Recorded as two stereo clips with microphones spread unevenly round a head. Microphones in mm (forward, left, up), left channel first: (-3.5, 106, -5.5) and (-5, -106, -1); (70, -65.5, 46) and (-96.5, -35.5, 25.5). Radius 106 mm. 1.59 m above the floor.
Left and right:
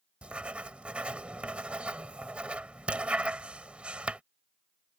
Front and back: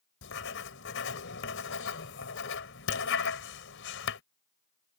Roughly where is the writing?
Ahead.